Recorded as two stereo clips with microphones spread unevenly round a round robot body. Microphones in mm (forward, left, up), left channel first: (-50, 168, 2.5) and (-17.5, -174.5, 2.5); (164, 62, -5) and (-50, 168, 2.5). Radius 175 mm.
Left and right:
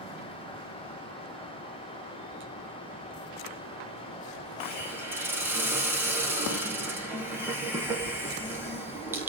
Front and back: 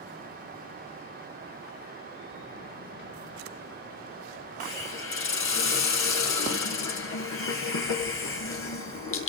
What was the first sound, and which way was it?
A hiss, straight ahead.